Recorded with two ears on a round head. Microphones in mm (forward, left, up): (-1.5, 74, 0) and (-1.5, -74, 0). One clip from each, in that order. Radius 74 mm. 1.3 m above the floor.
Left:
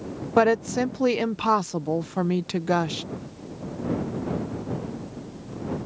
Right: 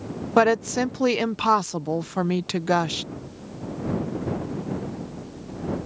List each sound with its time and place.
0.4 s a woman speaking: 20° right (ahead or behind)